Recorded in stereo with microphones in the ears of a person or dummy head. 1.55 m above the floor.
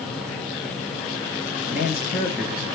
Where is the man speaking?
50° left (ahead or behind), 1.3 m.